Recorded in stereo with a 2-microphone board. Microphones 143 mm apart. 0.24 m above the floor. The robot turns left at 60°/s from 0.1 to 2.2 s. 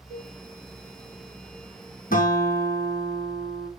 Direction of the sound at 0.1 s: 55° right (ahead or behind).